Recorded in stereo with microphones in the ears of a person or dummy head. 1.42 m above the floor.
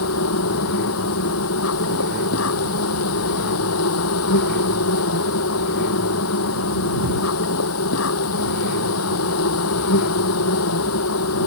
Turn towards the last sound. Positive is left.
turn(degrees=75)  # may be behind; listen again after turning